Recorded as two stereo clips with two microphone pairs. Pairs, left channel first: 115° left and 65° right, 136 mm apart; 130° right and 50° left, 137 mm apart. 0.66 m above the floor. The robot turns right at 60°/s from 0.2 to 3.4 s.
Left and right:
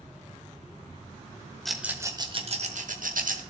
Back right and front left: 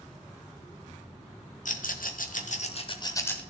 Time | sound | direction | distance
1.6 | a rattle | 155° right | 1.1 m